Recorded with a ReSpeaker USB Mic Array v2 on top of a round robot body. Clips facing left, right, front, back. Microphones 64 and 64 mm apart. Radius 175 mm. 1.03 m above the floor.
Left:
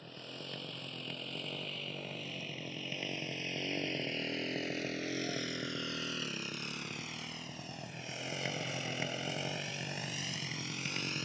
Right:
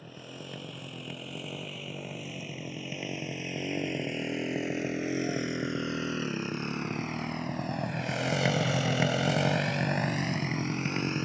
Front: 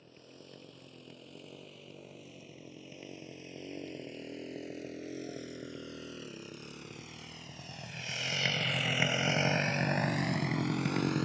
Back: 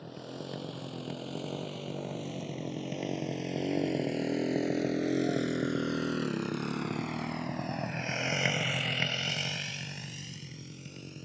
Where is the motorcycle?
170° right; by 11.3 s 25° right.